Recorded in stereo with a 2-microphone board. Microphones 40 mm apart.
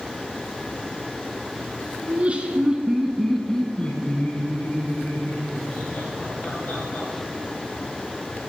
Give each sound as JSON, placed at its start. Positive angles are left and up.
{"t": 2.0, "sound": "laughter", "side_deg": -35, "distance_m": 1.7}